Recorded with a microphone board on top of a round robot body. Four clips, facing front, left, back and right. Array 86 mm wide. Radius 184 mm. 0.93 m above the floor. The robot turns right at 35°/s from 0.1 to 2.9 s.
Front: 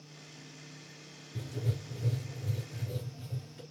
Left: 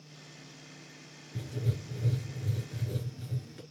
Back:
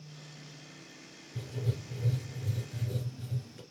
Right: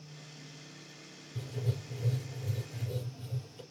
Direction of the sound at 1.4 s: 55° left.